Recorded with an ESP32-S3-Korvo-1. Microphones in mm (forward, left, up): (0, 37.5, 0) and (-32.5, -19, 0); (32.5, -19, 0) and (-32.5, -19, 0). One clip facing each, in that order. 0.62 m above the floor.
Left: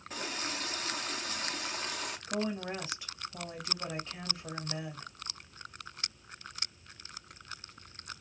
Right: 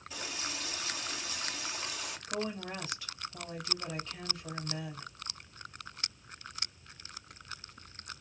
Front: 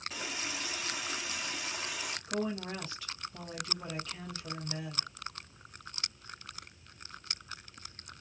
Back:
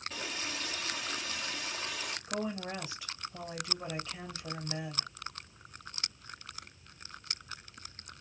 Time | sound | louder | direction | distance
0.1 | a running tap | left 3 dB, even | 75° left | 0.8 m
2.3 | a woman speaking | left 2 dB, front 2 dB | 110° left | 1.4 m